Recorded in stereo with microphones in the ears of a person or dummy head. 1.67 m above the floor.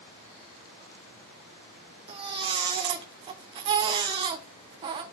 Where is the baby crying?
25° right (ahead or behind), 0.9 m.